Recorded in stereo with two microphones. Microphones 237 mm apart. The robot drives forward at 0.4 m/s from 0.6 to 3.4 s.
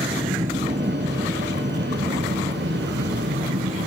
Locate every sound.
0.0 s an aircraft: 30° right (ahead or behind); by 3.9 s 50° right (ahead or behind)